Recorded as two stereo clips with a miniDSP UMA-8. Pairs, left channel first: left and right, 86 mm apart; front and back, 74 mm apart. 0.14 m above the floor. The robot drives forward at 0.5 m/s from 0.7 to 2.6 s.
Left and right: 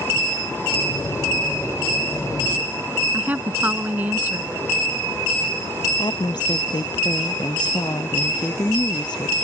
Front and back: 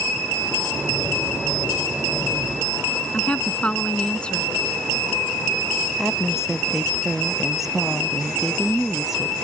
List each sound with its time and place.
3.1 s a woman speaking: 55° right
6.0 s a woman speaking: 95° left